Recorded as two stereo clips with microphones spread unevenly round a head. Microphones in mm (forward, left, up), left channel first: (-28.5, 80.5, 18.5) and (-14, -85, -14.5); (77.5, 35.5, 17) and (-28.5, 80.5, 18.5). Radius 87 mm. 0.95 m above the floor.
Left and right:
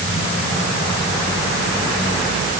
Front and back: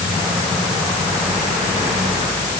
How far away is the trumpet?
I don't hear a trumpet.